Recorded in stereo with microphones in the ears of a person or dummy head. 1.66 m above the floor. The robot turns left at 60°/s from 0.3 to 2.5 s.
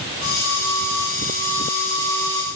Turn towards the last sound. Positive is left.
No sound to turn to.